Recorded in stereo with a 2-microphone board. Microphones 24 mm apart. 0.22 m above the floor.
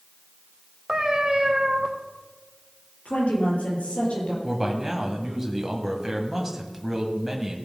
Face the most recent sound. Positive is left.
turn(degrees=-15)  # may be behind; listen again after turning